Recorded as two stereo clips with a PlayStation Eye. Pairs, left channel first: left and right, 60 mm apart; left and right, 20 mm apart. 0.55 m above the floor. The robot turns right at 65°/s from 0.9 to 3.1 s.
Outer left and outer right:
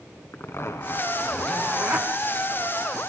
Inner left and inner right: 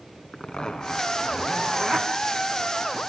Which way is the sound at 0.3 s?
135° left.